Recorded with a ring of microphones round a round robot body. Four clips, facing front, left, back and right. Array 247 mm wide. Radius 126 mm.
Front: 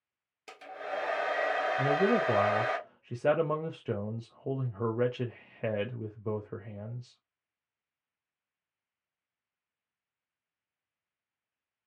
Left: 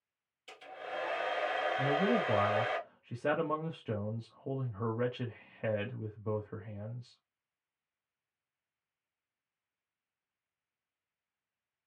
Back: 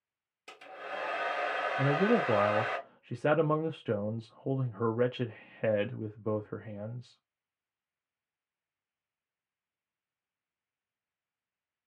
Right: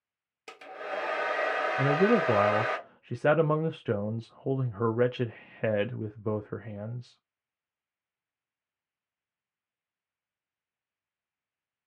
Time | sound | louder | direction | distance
0.5 | a hair dryer | right 5 dB, front 4 dB | 85° right | 1.2 m
1.8 | a man speaking | right 8 dB, even | 105° right | 0.5 m